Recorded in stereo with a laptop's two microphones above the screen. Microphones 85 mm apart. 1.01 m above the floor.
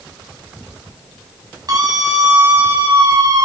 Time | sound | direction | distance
1.7 | a scream | 45° right (ahead or behind) | 6.5 m